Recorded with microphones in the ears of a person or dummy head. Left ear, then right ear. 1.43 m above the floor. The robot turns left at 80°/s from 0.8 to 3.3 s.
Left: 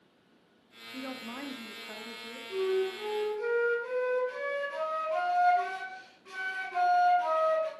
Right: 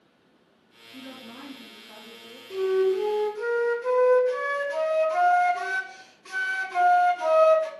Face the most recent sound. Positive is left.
turn(degrees=-105)